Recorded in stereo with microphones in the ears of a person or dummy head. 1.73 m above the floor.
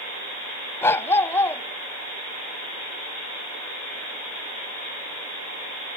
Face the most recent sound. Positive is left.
turn(degrees=15)  # may be behind; listen again after turning